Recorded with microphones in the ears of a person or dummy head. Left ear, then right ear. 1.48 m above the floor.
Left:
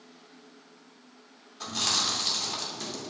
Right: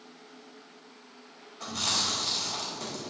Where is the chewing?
80° left, 2.5 m.